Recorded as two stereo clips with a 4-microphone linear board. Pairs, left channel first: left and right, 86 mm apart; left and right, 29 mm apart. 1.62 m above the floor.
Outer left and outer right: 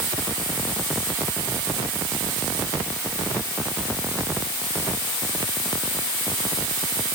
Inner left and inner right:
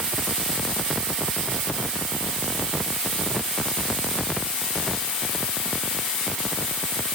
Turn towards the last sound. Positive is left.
No sound to turn to.